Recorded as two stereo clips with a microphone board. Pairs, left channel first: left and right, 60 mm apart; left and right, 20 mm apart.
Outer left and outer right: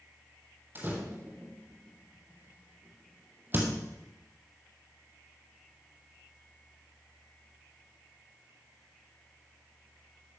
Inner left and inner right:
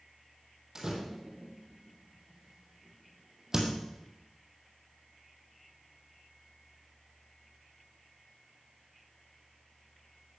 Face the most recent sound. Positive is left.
turn(degrees=-35)  # may be behind; listen again after turning